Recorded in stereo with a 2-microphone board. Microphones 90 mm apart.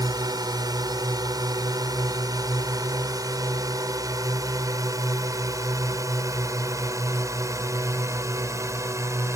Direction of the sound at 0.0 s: 45° right (ahead or behind).